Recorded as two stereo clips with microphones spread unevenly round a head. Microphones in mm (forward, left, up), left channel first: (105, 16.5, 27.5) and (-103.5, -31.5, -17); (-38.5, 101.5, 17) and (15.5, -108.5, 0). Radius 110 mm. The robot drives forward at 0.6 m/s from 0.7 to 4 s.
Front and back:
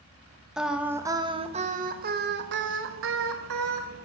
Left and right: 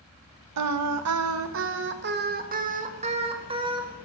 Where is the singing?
80° right, 1.2 m; by 3.9 s 145° right, 2 m.